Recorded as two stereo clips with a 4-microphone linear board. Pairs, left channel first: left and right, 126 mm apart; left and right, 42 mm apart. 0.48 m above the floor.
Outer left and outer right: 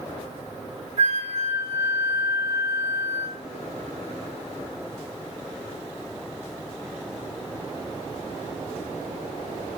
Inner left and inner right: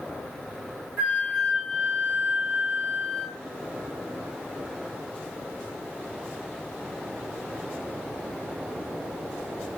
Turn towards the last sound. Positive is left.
turn(degrees=-30)  # may be behind; listen again after turning